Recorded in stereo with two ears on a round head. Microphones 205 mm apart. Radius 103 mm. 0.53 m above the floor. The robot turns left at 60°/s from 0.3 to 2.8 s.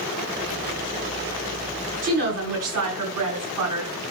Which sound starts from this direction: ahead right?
A woman speaking, at 2.0 s.